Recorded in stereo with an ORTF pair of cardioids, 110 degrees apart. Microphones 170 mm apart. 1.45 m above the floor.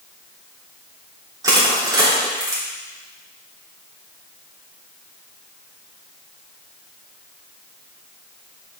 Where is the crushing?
20° right, 3.5 m.